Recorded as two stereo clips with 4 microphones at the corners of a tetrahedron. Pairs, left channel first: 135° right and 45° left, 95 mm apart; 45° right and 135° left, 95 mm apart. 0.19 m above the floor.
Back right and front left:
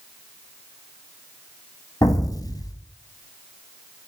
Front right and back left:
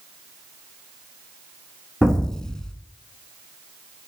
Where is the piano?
No piano in this recording.